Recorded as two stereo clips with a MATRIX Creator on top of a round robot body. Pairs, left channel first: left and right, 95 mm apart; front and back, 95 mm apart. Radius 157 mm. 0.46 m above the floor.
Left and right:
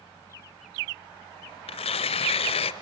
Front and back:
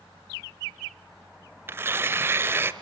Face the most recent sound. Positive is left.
turn(degrees=115)